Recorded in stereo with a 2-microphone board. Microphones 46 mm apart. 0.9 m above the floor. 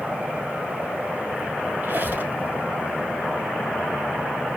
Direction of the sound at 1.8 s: 55° right (ahead or behind).